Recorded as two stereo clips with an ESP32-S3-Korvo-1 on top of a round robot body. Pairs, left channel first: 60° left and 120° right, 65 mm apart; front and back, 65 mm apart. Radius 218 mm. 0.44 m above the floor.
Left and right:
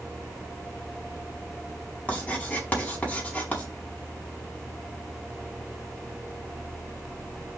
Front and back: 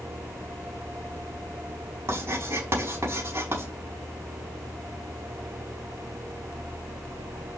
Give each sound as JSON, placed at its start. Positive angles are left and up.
{"t": 2.1, "sound": "writing", "azimuth_deg": 125, "distance_m": 5.0}